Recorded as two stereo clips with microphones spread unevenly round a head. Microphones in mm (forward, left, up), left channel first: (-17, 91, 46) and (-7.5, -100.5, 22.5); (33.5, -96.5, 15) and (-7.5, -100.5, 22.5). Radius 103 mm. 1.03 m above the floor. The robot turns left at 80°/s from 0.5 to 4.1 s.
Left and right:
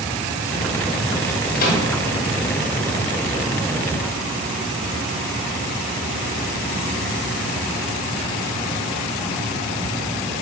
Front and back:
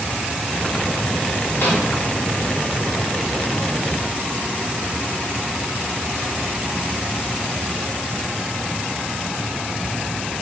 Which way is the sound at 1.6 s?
50° left.